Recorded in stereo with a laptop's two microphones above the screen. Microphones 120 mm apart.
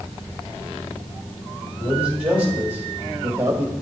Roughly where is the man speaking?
Centre.